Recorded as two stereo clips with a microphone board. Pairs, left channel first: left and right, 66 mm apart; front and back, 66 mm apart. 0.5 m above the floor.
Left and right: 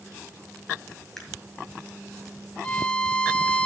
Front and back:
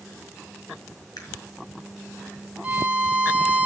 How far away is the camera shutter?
About 5 m.